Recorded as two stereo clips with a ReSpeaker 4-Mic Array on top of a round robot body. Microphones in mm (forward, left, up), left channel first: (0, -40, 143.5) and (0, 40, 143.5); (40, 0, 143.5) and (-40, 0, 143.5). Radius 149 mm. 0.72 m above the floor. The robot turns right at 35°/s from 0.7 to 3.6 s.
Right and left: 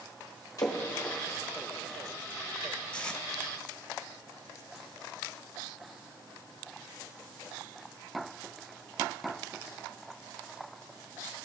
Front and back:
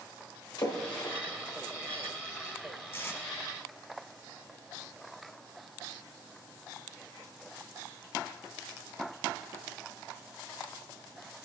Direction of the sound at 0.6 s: 40° right.